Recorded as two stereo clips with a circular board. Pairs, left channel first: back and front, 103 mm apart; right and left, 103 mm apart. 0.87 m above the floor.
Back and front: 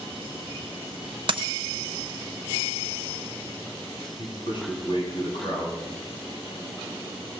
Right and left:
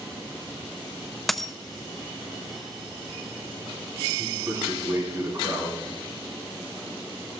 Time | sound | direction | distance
1.3 | a dropped coin | straight ahead | 0.8 m
4.2 | a man speaking | 145° left | 8.5 m